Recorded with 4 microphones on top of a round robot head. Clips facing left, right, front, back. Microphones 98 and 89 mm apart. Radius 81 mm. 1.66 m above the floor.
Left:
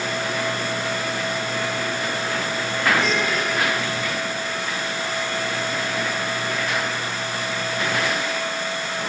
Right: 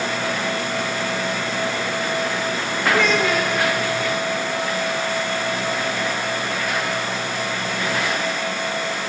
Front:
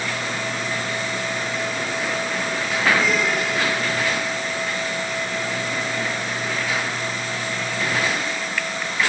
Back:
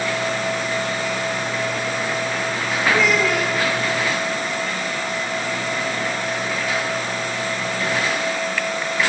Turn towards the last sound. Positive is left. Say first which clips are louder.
# right 5 dB, back 4 dB
turn(degrees=-135)